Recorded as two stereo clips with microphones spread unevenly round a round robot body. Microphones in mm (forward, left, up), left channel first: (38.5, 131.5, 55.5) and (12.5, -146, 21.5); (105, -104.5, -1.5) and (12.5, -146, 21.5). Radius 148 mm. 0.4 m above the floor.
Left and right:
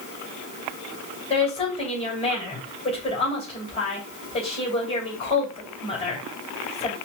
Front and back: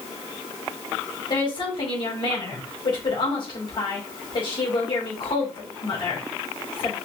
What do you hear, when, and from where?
1.3 s a woman speaking: 15° left, 2.5 m